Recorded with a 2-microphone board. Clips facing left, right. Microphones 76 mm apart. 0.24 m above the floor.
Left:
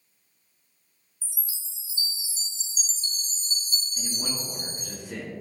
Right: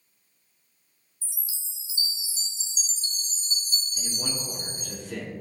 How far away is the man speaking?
About 3 m.